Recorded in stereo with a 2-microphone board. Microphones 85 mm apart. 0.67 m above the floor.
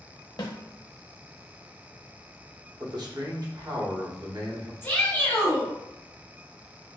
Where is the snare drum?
55° left (ahead or behind), 0.6 m.